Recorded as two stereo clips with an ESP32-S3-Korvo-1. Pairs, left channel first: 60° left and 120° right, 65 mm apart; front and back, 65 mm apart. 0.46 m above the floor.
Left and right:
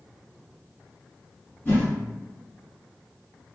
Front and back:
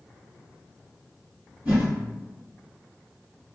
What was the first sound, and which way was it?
A whoosh, 120° left.